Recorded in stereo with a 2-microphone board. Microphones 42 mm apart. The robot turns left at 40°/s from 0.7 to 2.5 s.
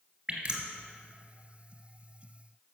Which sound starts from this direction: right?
Dripping, at 0.3 s.